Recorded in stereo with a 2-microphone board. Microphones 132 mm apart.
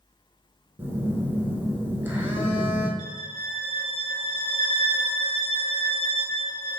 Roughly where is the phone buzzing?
Centre.